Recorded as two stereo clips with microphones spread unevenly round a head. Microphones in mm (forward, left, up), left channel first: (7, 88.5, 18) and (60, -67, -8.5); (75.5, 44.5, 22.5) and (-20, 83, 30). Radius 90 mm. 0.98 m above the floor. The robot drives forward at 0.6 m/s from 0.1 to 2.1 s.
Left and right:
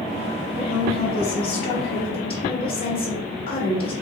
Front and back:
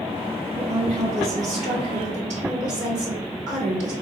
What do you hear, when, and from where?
0.6 s a woman speaking: 165° left, 1.0 m; by 3.9 s 175° left, 1.9 m